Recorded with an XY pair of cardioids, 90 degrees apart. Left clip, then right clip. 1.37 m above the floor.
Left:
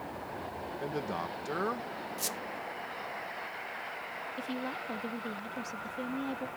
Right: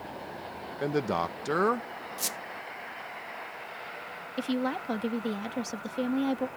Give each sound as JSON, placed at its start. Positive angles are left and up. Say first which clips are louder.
{"t": 0.8, "sound": "a man speaking", "louder": "right 8 dB", "azimuth_deg": -60}
{"t": 2.2, "sound": "a squeak", "louder": "right 3 dB", "azimuth_deg": -30}
{"t": 4.4, "sound": "a woman speaking", "louder": "right 9 dB", "azimuth_deg": -70}